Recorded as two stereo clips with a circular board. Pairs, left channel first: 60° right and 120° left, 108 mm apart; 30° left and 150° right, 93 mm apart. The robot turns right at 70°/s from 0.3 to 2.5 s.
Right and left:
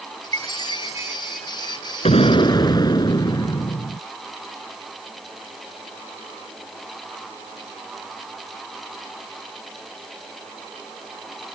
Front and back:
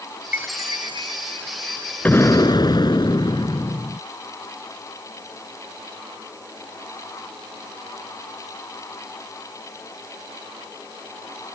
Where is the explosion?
40° right; by 4.0 s 10° right.